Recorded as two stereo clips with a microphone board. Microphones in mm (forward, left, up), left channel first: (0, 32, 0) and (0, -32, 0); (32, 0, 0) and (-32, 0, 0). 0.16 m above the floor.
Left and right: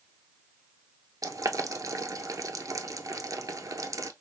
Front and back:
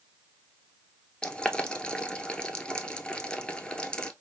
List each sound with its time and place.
1.2 s boiling: 75° right, 0.7 m